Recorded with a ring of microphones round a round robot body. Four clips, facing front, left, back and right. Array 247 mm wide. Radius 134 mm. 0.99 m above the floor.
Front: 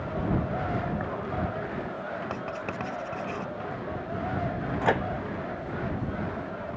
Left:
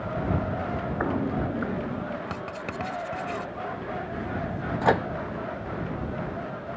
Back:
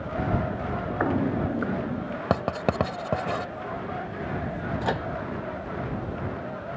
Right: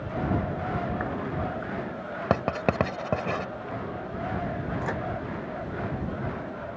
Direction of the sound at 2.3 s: 130° right.